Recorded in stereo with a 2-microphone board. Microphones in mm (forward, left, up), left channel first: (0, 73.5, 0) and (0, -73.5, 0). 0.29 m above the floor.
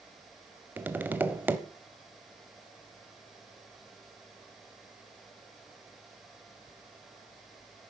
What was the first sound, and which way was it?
Tapping, 10° right (ahead or behind).